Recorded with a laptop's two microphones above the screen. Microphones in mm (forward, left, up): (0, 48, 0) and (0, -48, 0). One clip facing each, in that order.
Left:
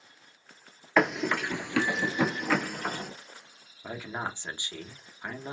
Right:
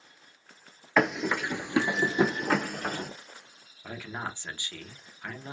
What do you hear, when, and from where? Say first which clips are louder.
1.0 s running footsteps: even; centre (ahead or behind), 1.1 m; by 3.1 s 50° right (ahead or behind), 1.3 m
3.8 s a man speaking: left 2 dB; 20° left (ahead or behind), 0.5 m